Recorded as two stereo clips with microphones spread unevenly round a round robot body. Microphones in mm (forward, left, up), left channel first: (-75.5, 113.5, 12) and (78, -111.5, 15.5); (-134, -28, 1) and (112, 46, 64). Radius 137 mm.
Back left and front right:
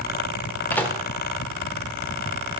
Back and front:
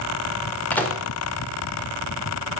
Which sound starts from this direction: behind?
A microwave, at 0.7 s.